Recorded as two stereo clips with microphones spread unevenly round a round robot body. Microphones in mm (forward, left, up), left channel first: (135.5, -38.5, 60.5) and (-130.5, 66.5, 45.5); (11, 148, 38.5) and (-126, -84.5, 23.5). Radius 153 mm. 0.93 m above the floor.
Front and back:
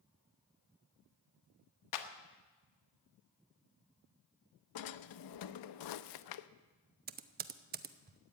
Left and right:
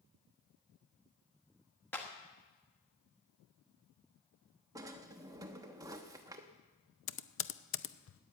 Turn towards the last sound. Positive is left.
turn(degrees=100)